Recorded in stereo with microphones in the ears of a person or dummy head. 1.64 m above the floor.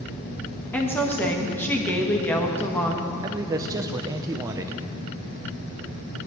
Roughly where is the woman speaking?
Centre.